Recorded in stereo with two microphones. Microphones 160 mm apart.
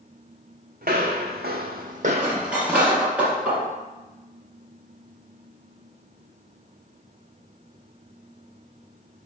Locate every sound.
0.8 s footsteps: 65° right (ahead or behind), 0.9 m; by 3.0 s 5° right (ahead or behind), 0.8 m
2.1 s cutlery clinking: 10° right (ahead or behind), 1.6 m